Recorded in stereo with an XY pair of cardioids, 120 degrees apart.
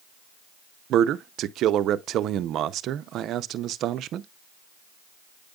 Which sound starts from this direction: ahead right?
A man speaking, at 0.9 s.